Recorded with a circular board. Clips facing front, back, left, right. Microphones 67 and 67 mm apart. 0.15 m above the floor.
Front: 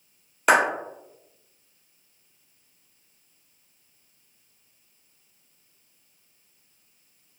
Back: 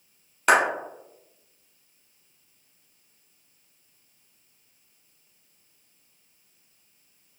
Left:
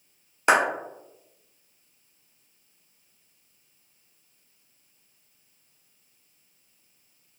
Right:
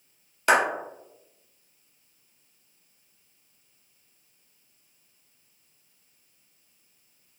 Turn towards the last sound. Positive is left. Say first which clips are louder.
# even, left 1 dB
turn(degrees=75)